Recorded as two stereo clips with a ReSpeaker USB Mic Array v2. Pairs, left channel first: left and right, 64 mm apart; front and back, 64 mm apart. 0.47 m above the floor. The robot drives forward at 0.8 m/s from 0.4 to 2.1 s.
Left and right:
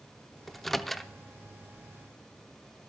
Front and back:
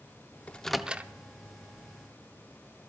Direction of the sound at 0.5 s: 10° left.